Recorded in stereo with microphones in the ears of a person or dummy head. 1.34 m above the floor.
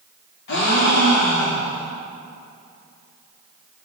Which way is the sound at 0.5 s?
60° left (ahead or behind).